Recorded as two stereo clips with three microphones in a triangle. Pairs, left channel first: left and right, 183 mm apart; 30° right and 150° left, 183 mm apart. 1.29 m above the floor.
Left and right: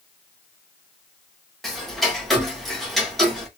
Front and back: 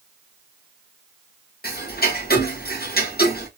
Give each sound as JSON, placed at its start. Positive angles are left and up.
{"t": 1.6, "sound": "ticking", "azimuth_deg": 0, "distance_m": 1.2}